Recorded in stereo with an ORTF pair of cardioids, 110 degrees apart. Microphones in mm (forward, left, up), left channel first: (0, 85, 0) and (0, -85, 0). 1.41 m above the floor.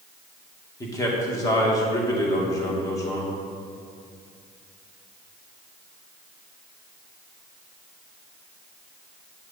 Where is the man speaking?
20° left, 2.0 m.